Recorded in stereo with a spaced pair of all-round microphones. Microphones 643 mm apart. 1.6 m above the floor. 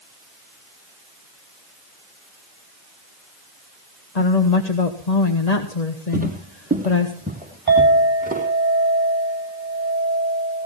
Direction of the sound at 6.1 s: 15° right (ahead or behind).